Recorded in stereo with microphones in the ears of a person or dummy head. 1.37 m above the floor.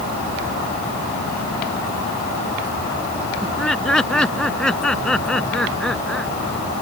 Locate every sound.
3.4 s laughter: 5° left (ahead or behind)